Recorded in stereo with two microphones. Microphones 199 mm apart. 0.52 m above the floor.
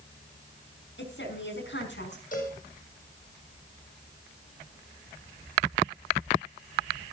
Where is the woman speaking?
75° left (ahead or behind), 5.5 m.